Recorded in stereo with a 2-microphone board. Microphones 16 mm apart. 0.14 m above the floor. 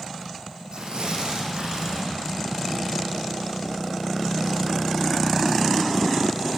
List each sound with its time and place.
0.7 s tearing paper: 55° right (ahead or behind), 6 m